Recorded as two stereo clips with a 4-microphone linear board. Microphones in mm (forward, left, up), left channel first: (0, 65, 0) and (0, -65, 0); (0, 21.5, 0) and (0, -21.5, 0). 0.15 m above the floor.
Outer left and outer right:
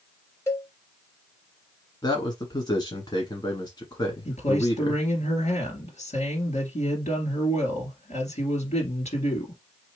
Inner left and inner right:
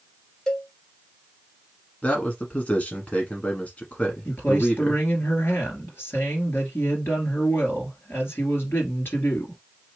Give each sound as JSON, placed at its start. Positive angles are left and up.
{"t": 0.5, "sound": "a cowbell", "side_deg": 20, "distance_m": 1.1}
{"t": 2.0, "sound": "a man speaking", "side_deg": 35, "distance_m": 1.3}
{"t": 4.2, "sound": "a man speaking", "side_deg": 60, "distance_m": 2.5}